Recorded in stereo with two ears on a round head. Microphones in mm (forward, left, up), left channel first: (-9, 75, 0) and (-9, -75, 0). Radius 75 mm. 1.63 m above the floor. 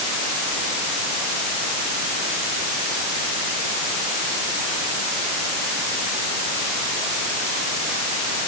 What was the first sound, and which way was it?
Only background noise.